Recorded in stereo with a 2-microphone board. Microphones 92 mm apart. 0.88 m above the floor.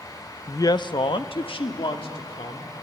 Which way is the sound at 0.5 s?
25° left (ahead or behind).